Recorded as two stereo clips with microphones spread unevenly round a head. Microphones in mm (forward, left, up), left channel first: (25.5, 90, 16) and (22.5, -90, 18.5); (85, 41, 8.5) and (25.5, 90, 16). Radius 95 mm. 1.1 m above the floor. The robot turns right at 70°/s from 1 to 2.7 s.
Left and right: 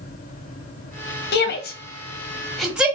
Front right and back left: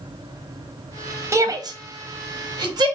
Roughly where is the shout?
Left.